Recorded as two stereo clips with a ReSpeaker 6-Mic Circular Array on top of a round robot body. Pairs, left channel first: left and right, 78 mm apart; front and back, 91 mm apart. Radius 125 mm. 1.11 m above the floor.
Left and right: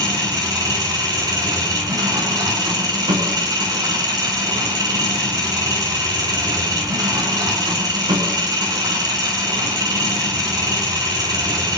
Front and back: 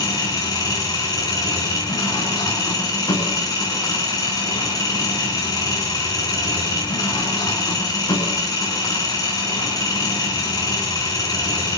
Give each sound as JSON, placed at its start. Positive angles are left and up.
{"t": 0.0, "sound": "an engine running", "azimuth_deg": -50, "distance_m": 7.0}